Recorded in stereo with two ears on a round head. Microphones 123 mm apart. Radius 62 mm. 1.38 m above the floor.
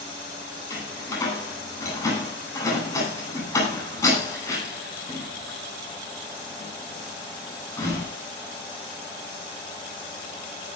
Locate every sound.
0.7 s a door slam: 25° left (ahead or behind), 9.5 m